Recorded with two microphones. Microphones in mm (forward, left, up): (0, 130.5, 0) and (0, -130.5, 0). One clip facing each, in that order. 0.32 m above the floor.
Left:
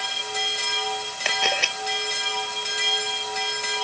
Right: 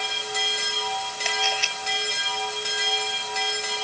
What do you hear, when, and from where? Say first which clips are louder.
1.2 s a camera shutter: left 3 dB; 70° left (ahead or behind)